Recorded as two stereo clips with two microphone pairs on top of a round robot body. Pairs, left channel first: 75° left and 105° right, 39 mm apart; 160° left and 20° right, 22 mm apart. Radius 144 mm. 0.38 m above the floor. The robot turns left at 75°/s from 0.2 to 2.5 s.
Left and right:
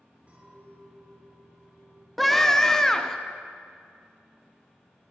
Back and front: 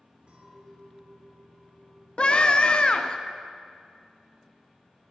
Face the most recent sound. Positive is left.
turn(degrees=155)